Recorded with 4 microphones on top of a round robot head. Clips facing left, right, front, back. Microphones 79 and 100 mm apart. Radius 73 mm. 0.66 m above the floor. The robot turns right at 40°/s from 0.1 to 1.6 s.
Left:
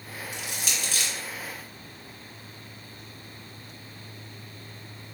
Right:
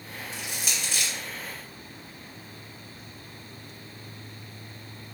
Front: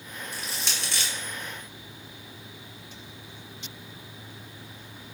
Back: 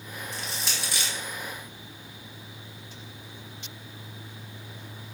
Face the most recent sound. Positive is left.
turn(degrees=125)